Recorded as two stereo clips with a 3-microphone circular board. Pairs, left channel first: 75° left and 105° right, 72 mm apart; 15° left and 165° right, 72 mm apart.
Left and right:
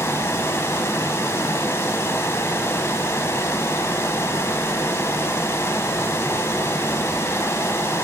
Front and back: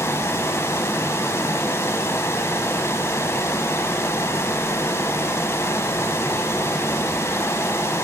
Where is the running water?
45° left, 0.8 m.